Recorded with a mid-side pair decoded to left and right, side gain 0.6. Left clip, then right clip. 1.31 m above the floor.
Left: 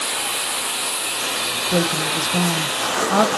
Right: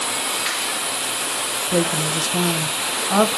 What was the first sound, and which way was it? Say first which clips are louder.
A woman speaking: even; straight ahead.